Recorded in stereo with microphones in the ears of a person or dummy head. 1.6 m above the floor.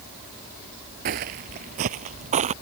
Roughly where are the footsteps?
Right.